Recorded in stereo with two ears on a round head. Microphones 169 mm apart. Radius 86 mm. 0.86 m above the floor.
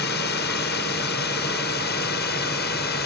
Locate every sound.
0.0 s a drone: 60° left (ahead or behind)